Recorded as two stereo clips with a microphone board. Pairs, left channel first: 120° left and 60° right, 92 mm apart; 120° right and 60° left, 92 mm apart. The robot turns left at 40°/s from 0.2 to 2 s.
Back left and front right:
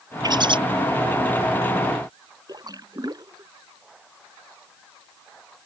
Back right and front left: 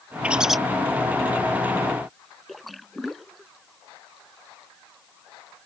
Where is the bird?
15° right; by 0.6 s 30° right.